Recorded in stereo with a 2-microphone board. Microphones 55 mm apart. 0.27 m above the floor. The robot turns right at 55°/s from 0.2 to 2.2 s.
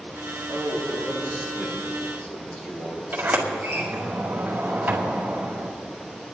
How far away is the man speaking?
About 5 m.